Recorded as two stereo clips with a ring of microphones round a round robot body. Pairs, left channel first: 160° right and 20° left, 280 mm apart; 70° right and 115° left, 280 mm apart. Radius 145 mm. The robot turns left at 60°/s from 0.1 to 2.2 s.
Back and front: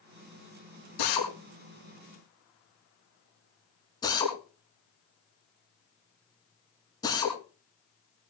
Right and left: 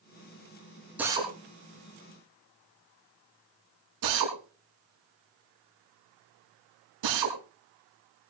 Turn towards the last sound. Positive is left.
turn(degrees=125)